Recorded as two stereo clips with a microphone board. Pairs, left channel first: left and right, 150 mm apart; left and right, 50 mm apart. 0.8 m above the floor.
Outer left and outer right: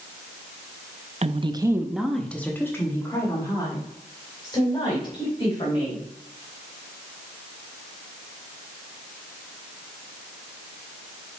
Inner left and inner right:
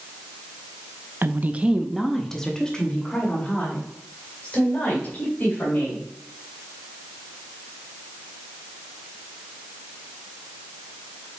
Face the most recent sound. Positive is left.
turn(degrees=35)  # may be behind; listen again after turning